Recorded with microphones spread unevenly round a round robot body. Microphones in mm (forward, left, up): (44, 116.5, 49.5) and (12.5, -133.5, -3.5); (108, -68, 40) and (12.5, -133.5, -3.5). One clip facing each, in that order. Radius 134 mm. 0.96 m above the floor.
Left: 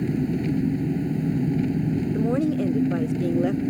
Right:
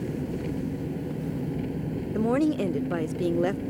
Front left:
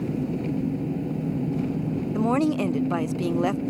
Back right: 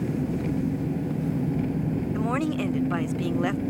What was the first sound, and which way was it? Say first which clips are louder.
An engine running: left 7 dB, even; 115° left.